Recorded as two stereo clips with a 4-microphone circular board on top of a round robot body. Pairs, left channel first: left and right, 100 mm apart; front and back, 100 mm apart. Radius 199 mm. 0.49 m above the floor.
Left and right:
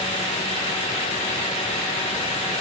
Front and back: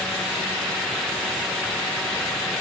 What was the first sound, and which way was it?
Only background noise.